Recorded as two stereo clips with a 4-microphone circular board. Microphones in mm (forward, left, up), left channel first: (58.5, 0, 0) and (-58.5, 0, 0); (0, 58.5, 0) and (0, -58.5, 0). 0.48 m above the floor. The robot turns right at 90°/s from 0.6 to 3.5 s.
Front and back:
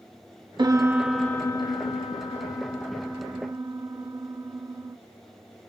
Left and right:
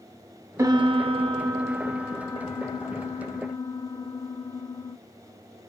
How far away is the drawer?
I don't hear a drawer.